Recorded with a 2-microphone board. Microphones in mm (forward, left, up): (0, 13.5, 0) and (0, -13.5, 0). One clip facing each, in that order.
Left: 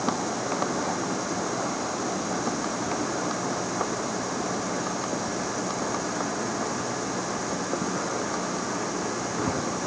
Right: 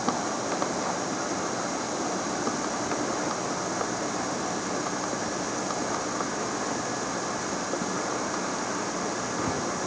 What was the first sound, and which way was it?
Only background noise.